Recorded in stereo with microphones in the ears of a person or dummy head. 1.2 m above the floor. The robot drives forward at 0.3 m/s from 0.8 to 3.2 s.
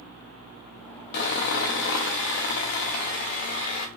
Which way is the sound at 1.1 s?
55° left (ahead or behind).